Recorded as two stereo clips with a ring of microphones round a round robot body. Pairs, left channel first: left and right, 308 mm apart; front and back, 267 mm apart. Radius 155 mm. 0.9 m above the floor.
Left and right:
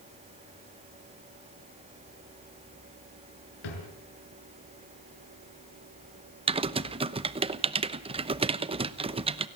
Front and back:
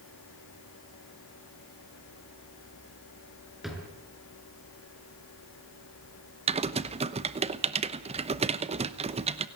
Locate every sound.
3.6 s a drawer: 90° left, 6.5 m
6.5 s typing on a keyboard: 140° right, 0.9 m